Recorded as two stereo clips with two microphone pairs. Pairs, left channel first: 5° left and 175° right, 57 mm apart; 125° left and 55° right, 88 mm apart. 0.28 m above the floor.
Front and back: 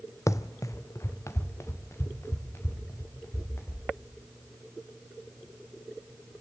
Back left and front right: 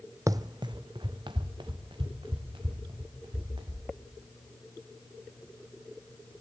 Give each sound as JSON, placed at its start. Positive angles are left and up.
{"t": 0.3, "sound": "running footsteps", "azimuth_deg": -5, "distance_m": 0.6}